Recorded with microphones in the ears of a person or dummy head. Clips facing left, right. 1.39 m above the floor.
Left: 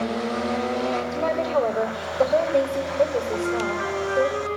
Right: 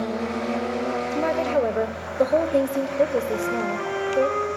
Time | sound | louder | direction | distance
1.1 | a woman speaking | right 2 dB | 10° right (ahead or behind) | 0.8 m
3.3 | a flute | even | 60° right (ahead or behind) | 5.5 m